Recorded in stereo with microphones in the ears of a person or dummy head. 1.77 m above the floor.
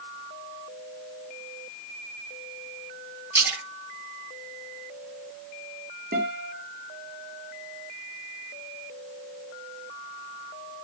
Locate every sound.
3.3 s a splash: 10° right (ahead or behind), 9 m
6.1 s a guitar: 45° right (ahead or behind), 3.5 m